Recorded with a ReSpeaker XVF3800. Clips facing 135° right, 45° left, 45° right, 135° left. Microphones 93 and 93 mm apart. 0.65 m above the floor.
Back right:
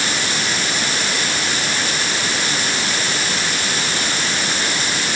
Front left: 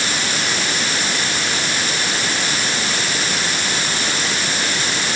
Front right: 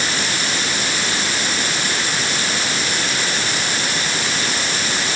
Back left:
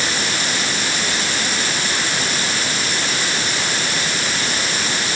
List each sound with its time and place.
Only background noise.